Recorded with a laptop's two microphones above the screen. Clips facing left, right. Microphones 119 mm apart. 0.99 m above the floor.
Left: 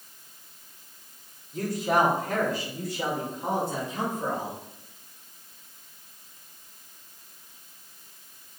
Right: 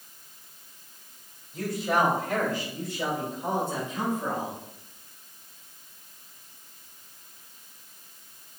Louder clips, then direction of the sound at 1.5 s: Left 2 dB; 45° left (ahead or behind).